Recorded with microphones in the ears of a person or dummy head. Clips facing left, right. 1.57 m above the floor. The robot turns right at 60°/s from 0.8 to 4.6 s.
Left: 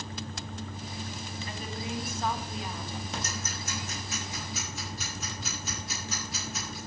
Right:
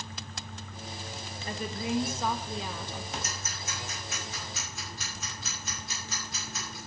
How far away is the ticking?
About 6 m.